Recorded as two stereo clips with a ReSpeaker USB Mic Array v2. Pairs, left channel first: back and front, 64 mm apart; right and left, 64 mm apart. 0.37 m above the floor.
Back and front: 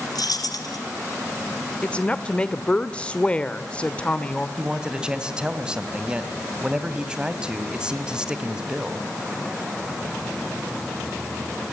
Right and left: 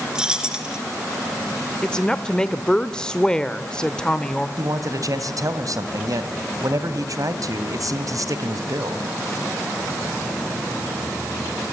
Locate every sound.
0.1 s keys jangling: 170° left, 3.5 m
1.8 s a woman speaking: 145° right, 1.1 m
4.6 s a man speaking: 75° left, 2.5 m